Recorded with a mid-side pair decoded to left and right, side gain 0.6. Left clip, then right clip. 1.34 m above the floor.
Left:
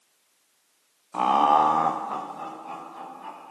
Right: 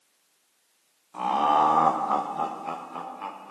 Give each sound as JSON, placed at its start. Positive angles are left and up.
{"t": 1.1, "sound": "laughter", "azimuth_deg": 40, "distance_m": 0.8}